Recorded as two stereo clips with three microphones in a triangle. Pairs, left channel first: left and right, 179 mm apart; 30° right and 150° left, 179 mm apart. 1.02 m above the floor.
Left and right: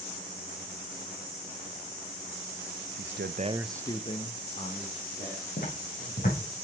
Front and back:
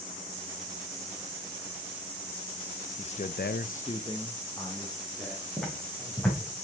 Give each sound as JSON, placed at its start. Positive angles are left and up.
{"t": 3.0, "sound": "a man speaking", "azimuth_deg": -90, "distance_m": 0.7}
{"t": 5.6, "sound": "footsteps", "azimuth_deg": 55, "distance_m": 4.0}